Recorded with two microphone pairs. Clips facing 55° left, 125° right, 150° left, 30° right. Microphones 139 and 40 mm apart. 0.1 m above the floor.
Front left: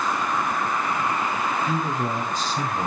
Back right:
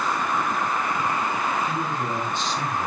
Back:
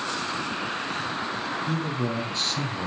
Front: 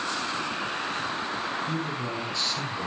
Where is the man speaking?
100° left, 4 m.